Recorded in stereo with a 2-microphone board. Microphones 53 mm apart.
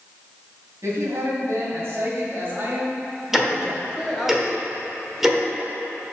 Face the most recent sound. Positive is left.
turn(degrees=-5)  # may be behind; listen again after turning